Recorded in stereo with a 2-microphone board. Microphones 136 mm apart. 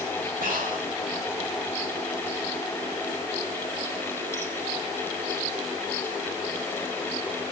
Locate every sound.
0.4 s breathing: 85° right, 5.5 m